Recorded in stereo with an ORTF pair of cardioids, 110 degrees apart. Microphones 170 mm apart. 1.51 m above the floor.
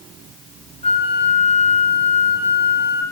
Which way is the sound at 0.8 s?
35° left.